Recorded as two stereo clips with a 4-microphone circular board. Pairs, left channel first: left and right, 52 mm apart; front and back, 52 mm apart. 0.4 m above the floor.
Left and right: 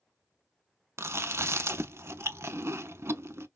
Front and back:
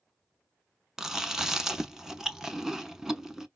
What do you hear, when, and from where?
1.0 s chewing: 100° right, 0.5 m